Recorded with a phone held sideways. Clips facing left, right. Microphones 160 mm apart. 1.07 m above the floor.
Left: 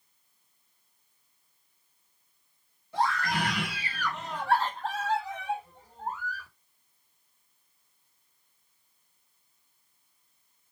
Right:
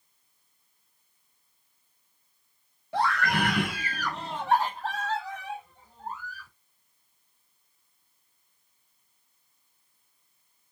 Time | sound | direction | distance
2.9 | a scream | 60° right (ahead or behind) | 1.4 m